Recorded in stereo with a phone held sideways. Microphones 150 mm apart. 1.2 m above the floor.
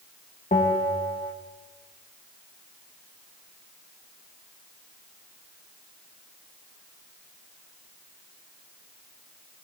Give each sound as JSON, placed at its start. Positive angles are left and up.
{"t": 0.5, "sound": "a bell", "side_deg": 65, "distance_m": 1.8}